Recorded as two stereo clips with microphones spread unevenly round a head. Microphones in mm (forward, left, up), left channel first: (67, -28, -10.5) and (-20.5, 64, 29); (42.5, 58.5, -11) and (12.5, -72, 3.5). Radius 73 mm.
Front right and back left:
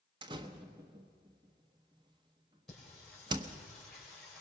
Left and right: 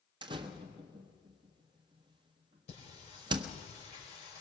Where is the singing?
40° left, 5.5 m.